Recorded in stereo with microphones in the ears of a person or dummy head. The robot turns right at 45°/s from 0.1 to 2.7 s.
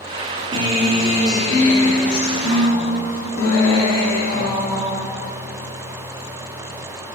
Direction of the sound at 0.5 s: 25° right.